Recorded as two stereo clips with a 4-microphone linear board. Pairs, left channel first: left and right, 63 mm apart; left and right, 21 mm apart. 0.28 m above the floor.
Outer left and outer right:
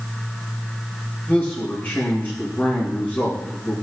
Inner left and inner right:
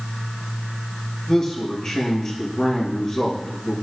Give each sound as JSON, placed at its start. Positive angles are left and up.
{"t": 1.3, "sound": "a man speaking", "side_deg": 20, "distance_m": 5.5}